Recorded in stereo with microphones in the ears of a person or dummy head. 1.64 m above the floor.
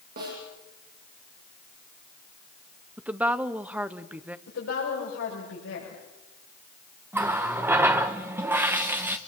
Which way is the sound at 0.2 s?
50° right (ahead or behind).